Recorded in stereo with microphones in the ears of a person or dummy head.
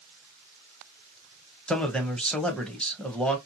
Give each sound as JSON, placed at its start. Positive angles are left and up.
{"t": 1.7, "sound": "a man speaking", "side_deg": 5, "distance_m": 0.7}